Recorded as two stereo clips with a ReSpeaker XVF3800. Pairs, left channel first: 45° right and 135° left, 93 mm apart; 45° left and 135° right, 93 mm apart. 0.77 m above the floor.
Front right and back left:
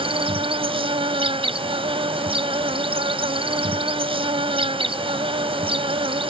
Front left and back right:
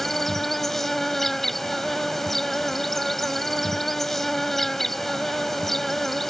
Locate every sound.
0.0 s an insect: 130° left